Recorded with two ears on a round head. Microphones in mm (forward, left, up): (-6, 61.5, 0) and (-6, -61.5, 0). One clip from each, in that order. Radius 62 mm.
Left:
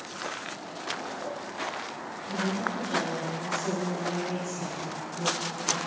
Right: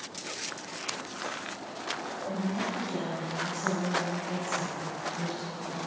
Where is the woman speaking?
70° left (ahead or behind), 3 m; by 5.8 s 80° left, 5 m.